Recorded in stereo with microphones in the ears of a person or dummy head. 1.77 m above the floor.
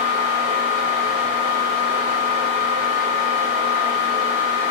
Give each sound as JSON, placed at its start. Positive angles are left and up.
{"t": 0.0, "sound": "a fan", "side_deg": -50, "distance_m": 1.9}